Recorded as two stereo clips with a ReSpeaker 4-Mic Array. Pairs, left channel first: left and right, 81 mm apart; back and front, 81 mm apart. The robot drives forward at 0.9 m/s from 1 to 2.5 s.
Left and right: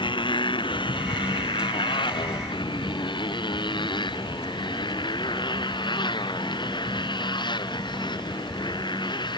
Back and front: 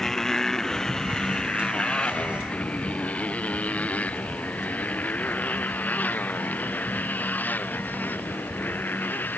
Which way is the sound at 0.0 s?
95° left.